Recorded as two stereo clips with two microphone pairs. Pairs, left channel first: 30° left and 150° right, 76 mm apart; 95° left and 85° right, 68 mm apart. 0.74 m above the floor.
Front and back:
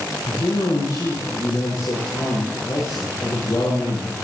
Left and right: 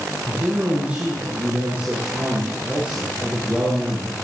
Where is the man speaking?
15° right, 9 m.